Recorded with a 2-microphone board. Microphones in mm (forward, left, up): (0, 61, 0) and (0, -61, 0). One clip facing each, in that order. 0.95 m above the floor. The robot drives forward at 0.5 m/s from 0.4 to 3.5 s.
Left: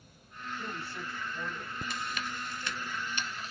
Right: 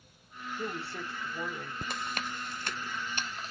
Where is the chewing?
50° right (ahead or behind), 0.8 m; by 3.5 s 35° right (ahead or behind), 1.0 m.